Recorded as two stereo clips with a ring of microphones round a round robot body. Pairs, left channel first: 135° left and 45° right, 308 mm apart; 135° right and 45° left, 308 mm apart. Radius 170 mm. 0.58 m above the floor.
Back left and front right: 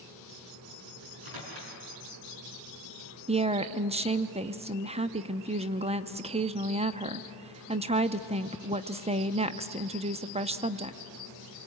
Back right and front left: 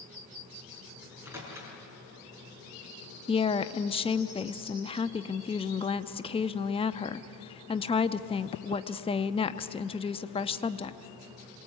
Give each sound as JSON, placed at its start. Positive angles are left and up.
{"t": 1.0, "sound": "a microwave", "azimuth_deg": -40, "distance_m": 5.5}
{"t": 3.3, "sound": "a woman speaking", "azimuth_deg": -85, "distance_m": 0.7}